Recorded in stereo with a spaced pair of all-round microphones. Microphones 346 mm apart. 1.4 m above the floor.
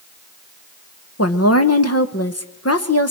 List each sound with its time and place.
1.2 s a woman speaking: 45° left (ahead or behind), 1.3 m